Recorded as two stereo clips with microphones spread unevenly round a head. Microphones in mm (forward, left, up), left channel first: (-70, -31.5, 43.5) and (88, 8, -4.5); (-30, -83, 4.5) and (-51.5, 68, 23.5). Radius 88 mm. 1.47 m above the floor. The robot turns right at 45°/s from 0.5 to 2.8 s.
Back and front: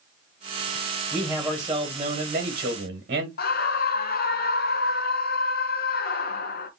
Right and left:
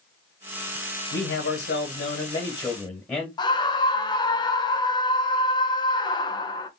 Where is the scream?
145° right, 1.0 m.